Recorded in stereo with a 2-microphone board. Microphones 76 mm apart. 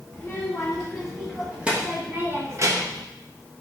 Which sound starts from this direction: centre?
A child speaking, at 0.1 s.